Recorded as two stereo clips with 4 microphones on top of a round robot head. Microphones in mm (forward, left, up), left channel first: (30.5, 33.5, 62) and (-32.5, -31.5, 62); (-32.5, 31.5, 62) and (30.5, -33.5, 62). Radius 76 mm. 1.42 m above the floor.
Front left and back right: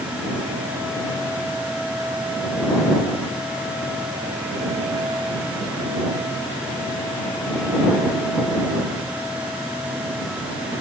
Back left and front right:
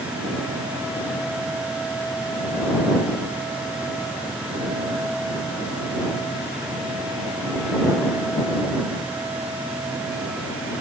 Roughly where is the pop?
No pop in this recording.